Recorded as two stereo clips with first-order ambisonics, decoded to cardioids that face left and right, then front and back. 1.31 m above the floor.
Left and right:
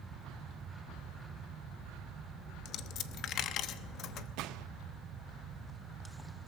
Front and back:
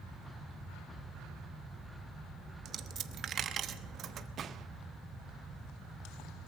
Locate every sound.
2.6 s a dropped coin: 130° left, 1.0 m
4.4 s a gunshot: 120° right, 0.8 m